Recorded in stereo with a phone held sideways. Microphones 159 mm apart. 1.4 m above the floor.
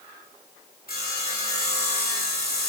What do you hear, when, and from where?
0.9 s sawing: 75° left (ahead or behind), 3 m